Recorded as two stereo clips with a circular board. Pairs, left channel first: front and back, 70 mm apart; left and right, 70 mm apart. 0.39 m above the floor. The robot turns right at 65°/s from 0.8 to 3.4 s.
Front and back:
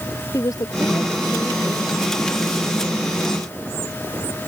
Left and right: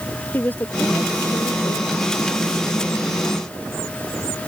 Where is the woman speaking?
30° left; by 2.0 s 105° left.